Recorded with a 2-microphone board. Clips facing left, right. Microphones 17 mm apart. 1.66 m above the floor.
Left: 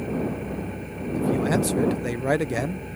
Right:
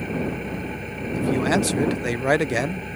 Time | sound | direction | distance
0.0 | an engine running | 30° right (ahead or behind) | ?
1.1 | a man speaking | 35° right (ahead or behind) | ?